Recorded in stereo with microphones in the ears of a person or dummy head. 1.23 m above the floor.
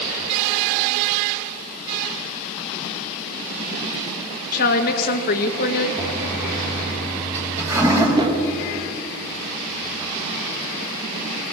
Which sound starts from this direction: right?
A whoosh, at 8.2 s.